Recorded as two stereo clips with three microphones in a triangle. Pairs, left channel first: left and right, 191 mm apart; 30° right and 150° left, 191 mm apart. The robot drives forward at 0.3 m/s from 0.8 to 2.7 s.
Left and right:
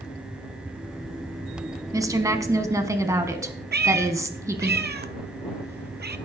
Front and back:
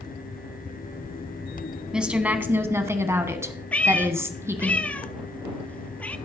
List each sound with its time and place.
1.9 s a woman speaking: 130° right, 1.1 m; by 4.7 s 145° right, 1.2 m
3.7 s a cat meowing: 115° right, 0.8 m